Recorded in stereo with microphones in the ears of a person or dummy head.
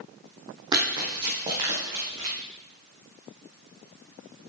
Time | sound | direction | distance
0.7 | running footsteps | 25° right (ahead or behind) | 2 m